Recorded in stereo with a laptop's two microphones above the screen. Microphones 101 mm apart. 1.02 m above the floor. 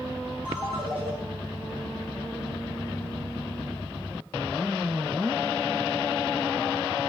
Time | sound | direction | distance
0.5 | a ringtone | 70° right (ahead or behind) | 3.5 m